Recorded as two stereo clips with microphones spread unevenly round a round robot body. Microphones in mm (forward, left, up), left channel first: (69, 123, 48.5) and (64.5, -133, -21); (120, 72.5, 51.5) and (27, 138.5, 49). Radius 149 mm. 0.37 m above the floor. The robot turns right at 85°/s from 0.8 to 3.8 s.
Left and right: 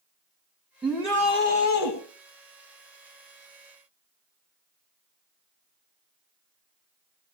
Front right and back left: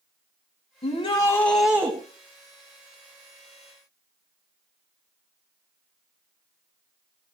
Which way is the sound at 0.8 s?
15° right.